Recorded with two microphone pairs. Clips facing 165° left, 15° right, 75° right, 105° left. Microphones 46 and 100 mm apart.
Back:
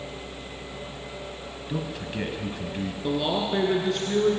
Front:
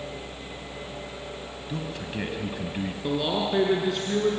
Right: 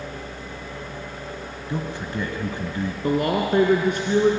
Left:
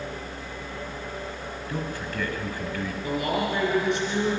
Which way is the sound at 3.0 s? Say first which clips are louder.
Back 1 dB, right 5 dB; 100° right.